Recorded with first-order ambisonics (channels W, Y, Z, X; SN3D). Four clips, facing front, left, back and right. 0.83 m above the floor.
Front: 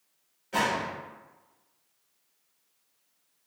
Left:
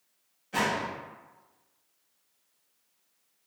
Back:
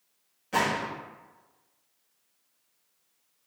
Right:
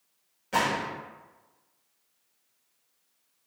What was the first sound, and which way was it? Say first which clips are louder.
A gunshot: right 2 dB, back 1 dB; 120° right.